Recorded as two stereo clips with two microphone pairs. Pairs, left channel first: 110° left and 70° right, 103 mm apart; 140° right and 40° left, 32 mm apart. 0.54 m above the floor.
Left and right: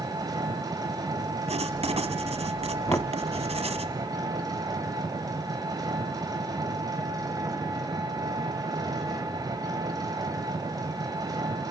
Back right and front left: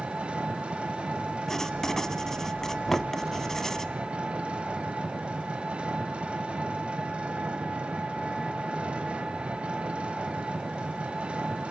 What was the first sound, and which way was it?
An engine running, 20° right.